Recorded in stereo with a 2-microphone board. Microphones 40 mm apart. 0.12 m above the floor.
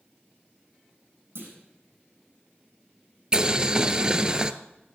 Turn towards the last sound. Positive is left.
turn(degrees=-20)  # may be behind; listen again after turning